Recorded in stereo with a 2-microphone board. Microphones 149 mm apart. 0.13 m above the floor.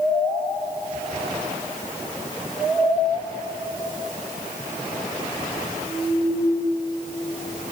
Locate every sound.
Only background noise.